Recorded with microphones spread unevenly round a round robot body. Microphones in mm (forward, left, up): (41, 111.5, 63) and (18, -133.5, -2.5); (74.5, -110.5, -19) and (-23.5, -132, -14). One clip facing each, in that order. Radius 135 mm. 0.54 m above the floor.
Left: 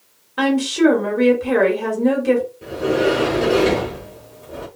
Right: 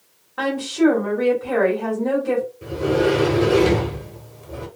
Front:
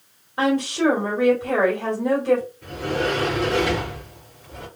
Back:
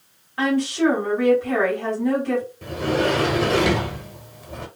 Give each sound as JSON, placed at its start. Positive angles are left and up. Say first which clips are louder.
{"t": 0.4, "sound": "a woman speaking", "louder": "left 3 dB, even", "azimuth_deg": 60, "distance_m": 1.5}
{"t": 2.6, "sound": "a sliding door", "louder": "left 1 dB, back 3 dB", "azimuth_deg": 180, "distance_m": 0.6}